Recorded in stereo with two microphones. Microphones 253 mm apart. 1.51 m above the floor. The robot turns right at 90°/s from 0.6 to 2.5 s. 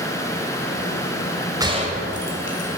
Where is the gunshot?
15° right (ahead or behind), 1.8 m; by 2.7 s 50° right (ahead or behind), 1.8 m.